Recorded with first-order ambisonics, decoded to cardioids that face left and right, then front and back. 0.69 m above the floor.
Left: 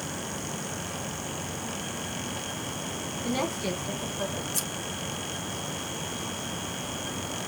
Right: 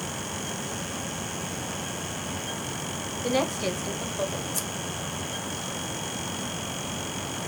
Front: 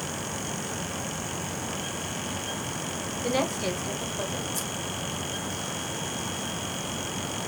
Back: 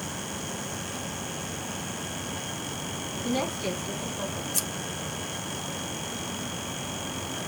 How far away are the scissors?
About 0.9 m.